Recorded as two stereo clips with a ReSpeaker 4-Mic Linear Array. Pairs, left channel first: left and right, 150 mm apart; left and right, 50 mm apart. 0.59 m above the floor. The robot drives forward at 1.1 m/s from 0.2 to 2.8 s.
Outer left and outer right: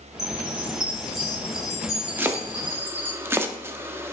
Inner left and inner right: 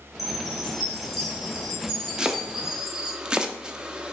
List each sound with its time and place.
0.2 s a chime: centre (ahead or behind), 3.5 m; by 3.2 s 10° right (ahead or behind), 0.7 m
2.2 s chopping: 15° right (ahead or behind), 0.6 m